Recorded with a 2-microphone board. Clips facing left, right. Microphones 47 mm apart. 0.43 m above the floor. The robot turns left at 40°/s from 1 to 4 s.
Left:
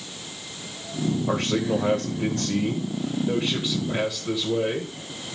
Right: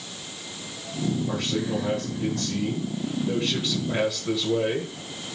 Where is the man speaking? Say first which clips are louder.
Left 3 dB; 100° left, 1.3 m; by 5.0 s 10° right, 1.3 m.